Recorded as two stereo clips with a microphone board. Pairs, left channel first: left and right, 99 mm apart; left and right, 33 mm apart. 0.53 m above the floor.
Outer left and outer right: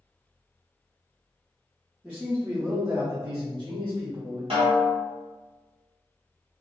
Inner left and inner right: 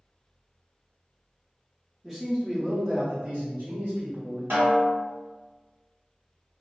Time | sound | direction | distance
2.0 | a man speaking | 10° right (ahead or behind) | 0.8 m
4.5 | a snare drum | 85° right | 1.6 m